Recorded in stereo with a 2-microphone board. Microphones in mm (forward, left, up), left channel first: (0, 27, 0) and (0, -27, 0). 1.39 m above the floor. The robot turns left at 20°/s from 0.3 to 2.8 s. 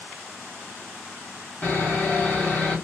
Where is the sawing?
35° left (ahead or behind), 1.3 m; by 2.8 s 20° left (ahead or behind), 1.3 m.